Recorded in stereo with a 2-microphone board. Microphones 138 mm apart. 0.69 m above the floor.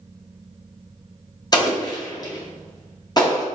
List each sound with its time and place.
1.5 s an explosion: 30° left (ahead or behind), 0.8 m